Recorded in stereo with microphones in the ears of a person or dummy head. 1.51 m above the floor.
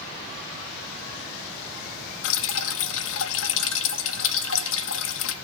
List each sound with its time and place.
2.2 s dripping: 70° left (ahead or behind), 0.8 m